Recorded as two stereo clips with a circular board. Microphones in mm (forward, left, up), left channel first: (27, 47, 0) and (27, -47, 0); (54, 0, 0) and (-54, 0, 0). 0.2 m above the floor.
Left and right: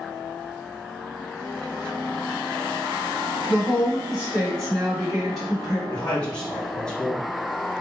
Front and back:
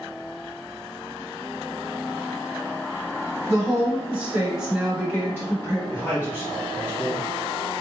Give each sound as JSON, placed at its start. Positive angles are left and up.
{"t": 3.5, "sound": "a woman speaking", "azimuth_deg": 165, "distance_m": 1.6}
{"t": 5.9, "sound": "a man speaking", "azimuth_deg": 25, "distance_m": 1.5}